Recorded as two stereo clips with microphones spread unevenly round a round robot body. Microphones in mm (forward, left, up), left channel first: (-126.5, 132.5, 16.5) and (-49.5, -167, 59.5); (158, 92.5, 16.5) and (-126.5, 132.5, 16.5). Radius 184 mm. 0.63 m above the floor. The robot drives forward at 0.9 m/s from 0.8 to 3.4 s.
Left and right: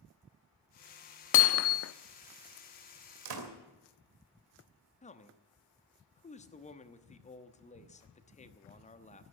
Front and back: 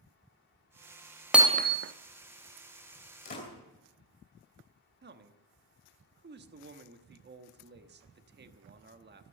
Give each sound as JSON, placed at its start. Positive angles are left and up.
{"t": 1.3, "sound": "hammering", "azimuth_deg": 85, "distance_m": 0.6}
{"t": 3.2, "sound": "a door slam", "azimuth_deg": -75, "distance_m": 2.5}
{"t": 5.0, "sound": "a man speaking", "azimuth_deg": 145, "distance_m": 1.1}